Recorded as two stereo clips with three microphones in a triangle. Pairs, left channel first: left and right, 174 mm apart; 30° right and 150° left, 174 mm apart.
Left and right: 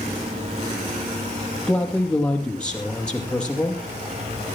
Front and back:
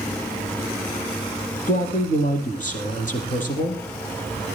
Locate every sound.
1.7 s a man speaking: 5° left, 4.5 m